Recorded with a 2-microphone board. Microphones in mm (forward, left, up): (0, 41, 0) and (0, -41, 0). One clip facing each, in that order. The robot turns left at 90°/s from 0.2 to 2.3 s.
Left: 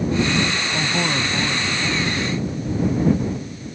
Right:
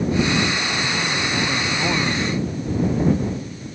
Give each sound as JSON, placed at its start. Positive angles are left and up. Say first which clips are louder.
{"t": 0.7, "sound": "a man speaking", "louder": "left 1 dB", "azimuth_deg": 65}